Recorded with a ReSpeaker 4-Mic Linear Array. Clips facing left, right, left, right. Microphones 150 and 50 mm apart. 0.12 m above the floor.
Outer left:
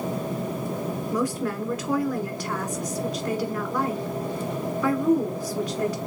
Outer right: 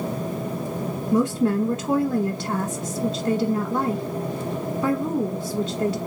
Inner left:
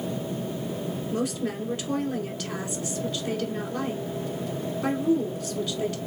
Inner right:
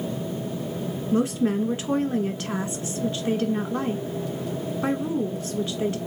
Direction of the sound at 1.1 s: 30° right (ahead or behind).